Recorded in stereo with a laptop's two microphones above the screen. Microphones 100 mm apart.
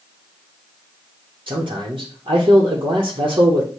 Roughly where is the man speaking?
Right.